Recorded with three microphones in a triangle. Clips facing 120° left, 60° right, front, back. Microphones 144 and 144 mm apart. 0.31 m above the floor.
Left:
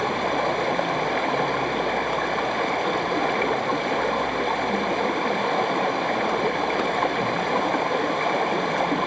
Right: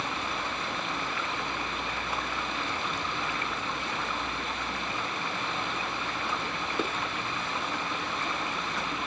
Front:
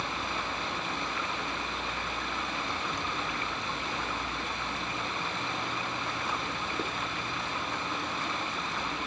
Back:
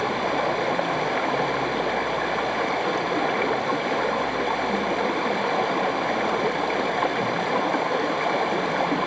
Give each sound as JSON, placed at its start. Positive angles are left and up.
{"t": 0.0, "sound": "running water", "azimuth_deg": 150}